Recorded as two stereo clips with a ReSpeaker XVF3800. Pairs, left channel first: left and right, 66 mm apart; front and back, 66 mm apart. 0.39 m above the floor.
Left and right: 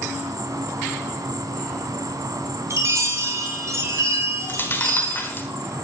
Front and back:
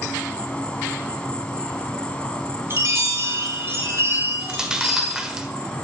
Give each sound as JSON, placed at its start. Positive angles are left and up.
{"t": 0.0, "sound": "an insect", "azimuth_deg": -70, "distance_m": 1.6}
{"t": 2.7, "sound": "a chime", "azimuth_deg": -130, "distance_m": 4.0}
{"t": 4.4, "sound": "chewing", "azimuth_deg": 110, "distance_m": 1.4}